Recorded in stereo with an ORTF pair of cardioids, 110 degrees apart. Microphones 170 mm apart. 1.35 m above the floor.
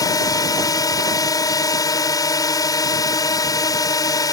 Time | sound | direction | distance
0.0 | a drone | 20° left | ?